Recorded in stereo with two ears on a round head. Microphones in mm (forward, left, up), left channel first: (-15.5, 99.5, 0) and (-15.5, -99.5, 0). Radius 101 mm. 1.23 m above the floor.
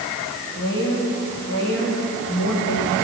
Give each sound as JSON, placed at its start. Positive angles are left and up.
{"t": 0.5, "sound": "a woman speaking", "side_deg": 50, "distance_m": 7.0}